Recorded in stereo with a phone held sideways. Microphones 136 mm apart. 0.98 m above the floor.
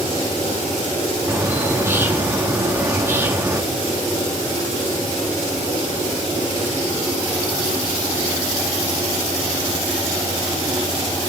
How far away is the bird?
About 1.1 m.